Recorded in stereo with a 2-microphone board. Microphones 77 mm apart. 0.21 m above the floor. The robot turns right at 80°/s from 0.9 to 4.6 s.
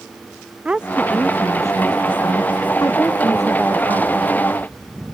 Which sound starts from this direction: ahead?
A woman speaking, at 0.7 s.